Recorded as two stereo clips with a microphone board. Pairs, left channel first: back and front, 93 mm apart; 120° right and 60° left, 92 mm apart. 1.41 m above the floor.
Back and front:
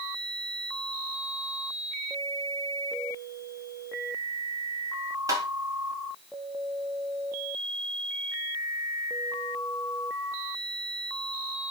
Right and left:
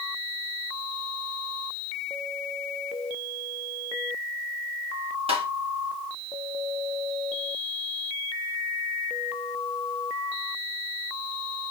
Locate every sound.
5.3 s tapping: 55° left, 1.8 m